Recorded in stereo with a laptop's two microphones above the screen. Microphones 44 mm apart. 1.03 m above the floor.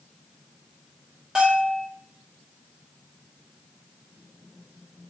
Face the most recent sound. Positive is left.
turn(degrees=-15)  # may be behind; listen again after turning